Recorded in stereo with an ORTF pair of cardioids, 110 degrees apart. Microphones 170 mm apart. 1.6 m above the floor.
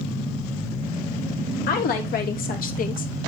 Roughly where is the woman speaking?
Ahead left.